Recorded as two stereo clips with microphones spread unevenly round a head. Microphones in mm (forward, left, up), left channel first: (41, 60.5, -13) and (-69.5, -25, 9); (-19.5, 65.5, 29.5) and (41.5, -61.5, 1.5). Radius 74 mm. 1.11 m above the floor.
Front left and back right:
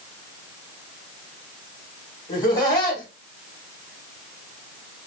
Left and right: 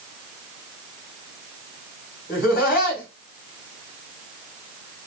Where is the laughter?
90° left, 2.5 m.